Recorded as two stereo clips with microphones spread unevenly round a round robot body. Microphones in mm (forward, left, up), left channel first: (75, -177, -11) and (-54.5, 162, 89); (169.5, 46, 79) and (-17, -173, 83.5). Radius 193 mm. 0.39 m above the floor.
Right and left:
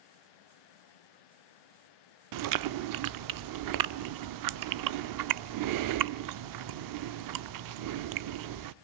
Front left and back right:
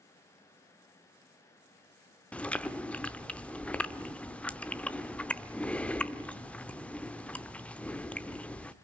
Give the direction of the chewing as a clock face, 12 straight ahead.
8 o'clock.